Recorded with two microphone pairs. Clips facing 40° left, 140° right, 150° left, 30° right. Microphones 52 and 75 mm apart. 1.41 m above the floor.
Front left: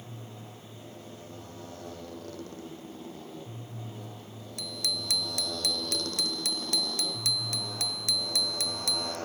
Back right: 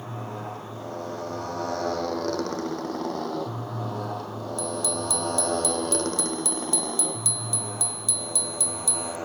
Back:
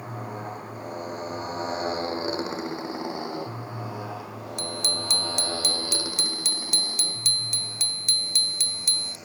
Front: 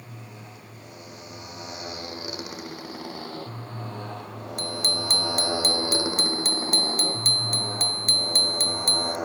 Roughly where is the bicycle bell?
Ahead.